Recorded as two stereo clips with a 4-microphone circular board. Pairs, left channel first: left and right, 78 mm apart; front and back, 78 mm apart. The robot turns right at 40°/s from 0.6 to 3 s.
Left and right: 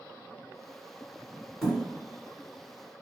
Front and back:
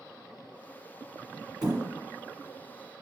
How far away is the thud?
About 1.4 m.